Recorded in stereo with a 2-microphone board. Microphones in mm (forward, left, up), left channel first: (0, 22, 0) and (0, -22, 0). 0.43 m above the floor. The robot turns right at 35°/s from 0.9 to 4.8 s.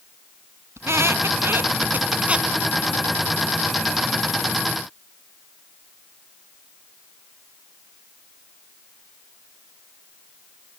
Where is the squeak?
80° right, 1.3 m; by 2.5 s 20° right (ahead or behind), 1.3 m.